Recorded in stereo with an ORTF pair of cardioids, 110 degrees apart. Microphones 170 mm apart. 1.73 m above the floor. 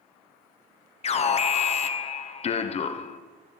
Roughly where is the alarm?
Ahead left.